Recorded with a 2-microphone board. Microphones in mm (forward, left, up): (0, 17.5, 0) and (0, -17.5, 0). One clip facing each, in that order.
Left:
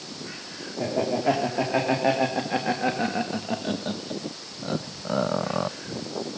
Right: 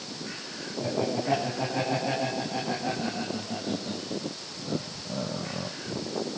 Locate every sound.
0.8 s laughter: 55° left (ahead or behind), 4 m